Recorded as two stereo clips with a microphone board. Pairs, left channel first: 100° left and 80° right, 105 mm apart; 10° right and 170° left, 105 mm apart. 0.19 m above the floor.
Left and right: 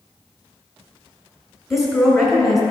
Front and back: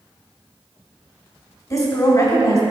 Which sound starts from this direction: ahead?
A woman speaking, at 1.7 s.